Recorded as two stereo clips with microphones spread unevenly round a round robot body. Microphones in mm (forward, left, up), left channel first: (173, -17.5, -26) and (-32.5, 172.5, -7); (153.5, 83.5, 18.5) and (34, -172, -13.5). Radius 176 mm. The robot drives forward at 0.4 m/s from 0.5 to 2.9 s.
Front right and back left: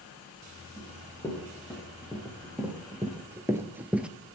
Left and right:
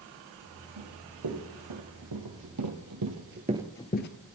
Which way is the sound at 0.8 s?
130° right.